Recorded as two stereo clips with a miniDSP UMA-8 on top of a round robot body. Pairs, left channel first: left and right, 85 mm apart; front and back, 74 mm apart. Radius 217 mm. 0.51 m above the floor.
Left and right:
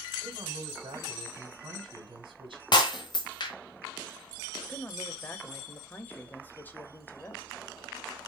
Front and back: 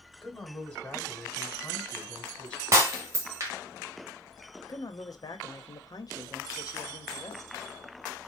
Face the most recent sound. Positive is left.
turn(degrees=20)